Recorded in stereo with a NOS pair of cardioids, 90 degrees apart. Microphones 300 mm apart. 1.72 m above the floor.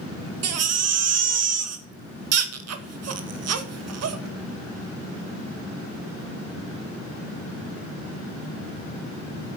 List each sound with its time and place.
0.4 s a baby crying: 60° right, 2.0 m